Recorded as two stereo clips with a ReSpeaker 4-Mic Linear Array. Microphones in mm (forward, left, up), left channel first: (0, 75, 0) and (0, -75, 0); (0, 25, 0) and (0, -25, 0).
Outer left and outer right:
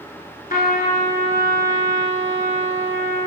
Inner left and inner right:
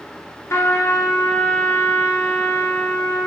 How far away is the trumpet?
About 1.1 m.